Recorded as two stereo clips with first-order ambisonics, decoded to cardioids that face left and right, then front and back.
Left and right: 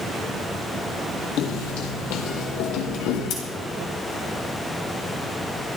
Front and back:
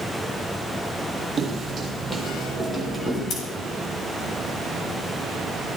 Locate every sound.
1.4 s footsteps: 110° left, 2.5 m; by 3.2 s 80° left, 3.5 m
3.3 s scissors: 50° left, 4.5 m